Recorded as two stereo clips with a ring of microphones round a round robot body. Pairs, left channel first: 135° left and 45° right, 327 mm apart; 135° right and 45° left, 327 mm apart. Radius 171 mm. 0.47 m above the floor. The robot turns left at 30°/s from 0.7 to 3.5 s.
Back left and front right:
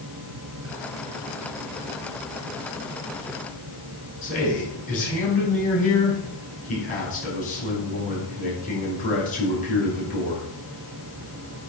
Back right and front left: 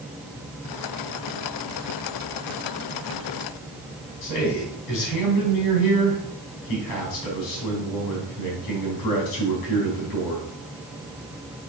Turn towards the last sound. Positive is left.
turn(degrees=-155)